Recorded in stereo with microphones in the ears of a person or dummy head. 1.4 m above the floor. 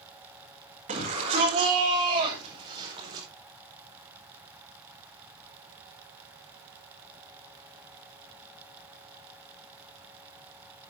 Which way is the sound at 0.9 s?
50° right (ahead or behind).